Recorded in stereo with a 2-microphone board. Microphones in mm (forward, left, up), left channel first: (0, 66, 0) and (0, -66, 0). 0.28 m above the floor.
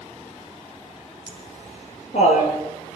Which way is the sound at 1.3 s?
50° left (ahead or behind).